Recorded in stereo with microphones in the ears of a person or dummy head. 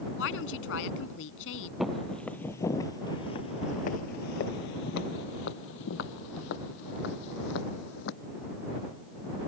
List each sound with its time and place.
0.2 s a woman speaking: 70° left (ahead or behind)
1.8 s footsteps: centre (ahead or behind); by 8.1 s 65° left (ahead or behind)